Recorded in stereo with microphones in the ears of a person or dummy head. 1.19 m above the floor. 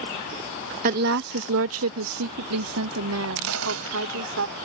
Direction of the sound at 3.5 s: 80° right.